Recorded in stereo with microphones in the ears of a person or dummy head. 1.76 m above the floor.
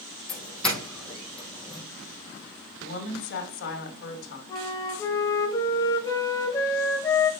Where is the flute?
25° left (ahead or behind), 1.2 m.